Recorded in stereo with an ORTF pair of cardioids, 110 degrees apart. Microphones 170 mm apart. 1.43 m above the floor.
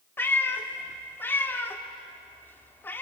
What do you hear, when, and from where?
0.2 s a cat meowing: 15° left, 2 m